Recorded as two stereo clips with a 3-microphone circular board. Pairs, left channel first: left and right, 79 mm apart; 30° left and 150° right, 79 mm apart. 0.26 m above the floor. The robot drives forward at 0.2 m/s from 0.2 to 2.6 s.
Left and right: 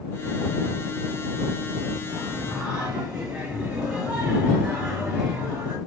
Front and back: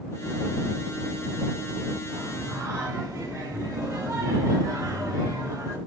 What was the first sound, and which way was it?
Singing, 165° right.